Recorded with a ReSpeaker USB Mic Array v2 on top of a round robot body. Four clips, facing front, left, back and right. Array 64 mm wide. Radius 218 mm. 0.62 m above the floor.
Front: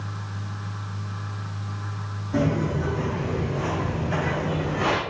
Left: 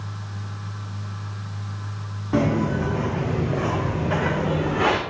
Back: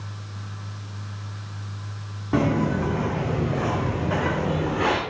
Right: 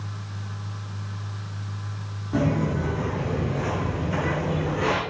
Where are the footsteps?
150° left, 4.5 m; by 5.0 s 100° left, 3.5 m.